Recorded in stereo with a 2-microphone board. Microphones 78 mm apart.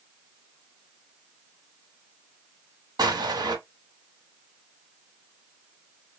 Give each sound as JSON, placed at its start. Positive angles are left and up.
{"t": 3.0, "sound": "an explosion", "side_deg": -65, "distance_m": 1.2}